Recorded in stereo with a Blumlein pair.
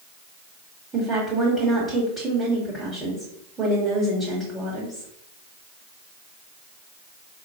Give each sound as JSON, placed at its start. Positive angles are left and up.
{"t": 0.9, "sound": "a woman speaking", "azimuth_deg": -5, "distance_m": 1.4}